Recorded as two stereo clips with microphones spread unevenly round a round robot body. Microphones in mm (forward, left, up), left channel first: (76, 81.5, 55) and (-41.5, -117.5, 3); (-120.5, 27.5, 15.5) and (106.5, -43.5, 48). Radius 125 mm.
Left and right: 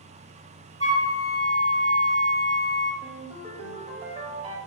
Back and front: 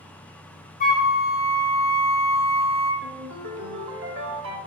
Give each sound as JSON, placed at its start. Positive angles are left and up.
{"t": 0.8, "sound": "a flute", "azimuth_deg": 145, "distance_m": 1.5}
{"t": 3.0, "sound": "a ringtone", "azimuth_deg": -60, "distance_m": 0.9}